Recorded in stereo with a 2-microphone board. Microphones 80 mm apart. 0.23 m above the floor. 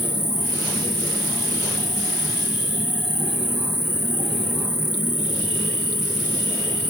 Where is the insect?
60° right (ahead or behind), 5.5 m.